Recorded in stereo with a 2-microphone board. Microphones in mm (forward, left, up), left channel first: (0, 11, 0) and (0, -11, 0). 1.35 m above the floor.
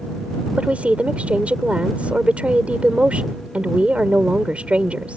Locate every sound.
0.6 s a woman speaking: 75° right (ahead or behind)